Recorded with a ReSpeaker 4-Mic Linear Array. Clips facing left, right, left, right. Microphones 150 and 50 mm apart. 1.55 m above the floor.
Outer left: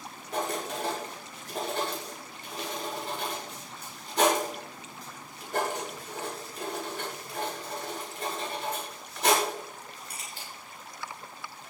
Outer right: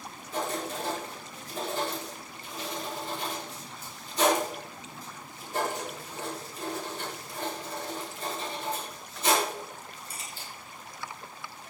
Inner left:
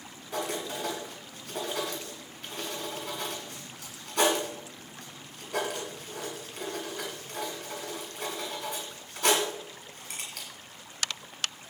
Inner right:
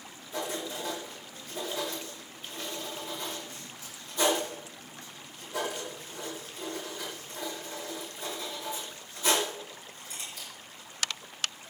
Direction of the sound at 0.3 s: 75° left (ahead or behind).